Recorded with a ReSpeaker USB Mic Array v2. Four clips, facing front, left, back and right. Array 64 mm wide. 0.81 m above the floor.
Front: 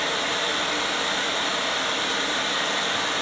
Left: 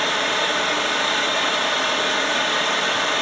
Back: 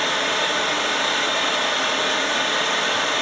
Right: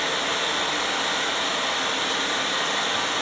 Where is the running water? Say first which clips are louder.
Left 4 dB, back 4 dB; 130° left, 1.3 m.